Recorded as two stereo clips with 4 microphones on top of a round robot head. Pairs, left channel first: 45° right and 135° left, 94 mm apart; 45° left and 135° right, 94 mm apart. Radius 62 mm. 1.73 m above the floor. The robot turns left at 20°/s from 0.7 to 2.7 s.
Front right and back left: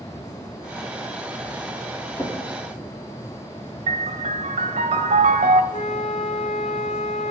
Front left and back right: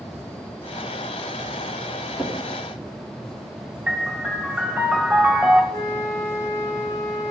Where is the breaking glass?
I don't hear breaking glass.